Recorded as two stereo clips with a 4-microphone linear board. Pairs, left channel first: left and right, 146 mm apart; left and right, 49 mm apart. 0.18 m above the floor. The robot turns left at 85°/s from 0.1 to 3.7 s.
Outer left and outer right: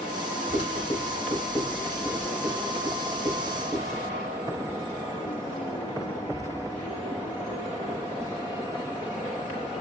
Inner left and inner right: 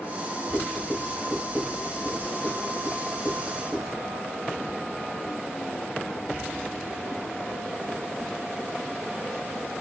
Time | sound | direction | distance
0.5 | writing | 35° left (ahead or behind) | 1.7 m